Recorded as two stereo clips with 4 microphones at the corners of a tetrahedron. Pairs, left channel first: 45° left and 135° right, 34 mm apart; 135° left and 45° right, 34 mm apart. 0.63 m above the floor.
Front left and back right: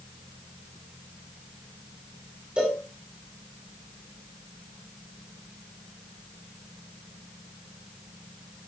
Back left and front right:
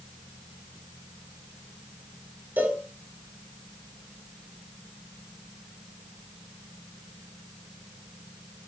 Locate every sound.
2.6 s a cowbell: 80° right, 9 m